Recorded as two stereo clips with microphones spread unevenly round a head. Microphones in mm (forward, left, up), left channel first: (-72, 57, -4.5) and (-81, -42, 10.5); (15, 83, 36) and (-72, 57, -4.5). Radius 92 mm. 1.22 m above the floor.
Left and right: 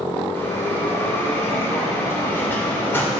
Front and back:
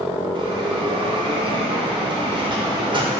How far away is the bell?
About 1.8 m.